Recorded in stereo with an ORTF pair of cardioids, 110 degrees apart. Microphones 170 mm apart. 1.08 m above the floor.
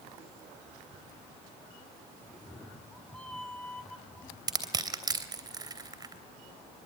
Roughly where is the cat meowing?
Ahead.